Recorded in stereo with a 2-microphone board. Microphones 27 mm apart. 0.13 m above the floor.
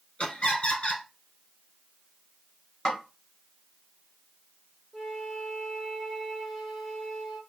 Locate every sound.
0.2 s laughter: 45° left (ahead or behind), 1.6 m
2.9 s a snare drum: 20° left (ahead or behind), 1.8 m
4.9 s a flute: 5° right (ahead or behind), 1.7 m